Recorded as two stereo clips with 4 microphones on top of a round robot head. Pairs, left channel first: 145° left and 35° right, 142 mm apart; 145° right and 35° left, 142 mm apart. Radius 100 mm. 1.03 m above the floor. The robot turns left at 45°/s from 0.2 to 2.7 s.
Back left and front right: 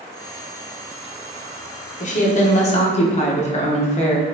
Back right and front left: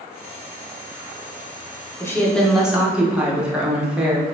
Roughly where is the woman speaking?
Behind left.